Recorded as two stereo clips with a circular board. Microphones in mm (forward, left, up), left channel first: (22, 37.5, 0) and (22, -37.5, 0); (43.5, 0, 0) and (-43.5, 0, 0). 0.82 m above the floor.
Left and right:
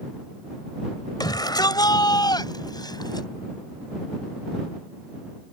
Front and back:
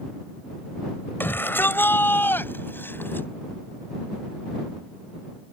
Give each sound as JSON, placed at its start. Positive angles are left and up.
{"t": 1.2, "sound": "a shout", "azimuth_deg": 65}